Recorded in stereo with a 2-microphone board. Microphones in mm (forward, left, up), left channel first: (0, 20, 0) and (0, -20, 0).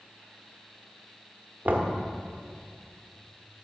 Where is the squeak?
I don't hear a squeak.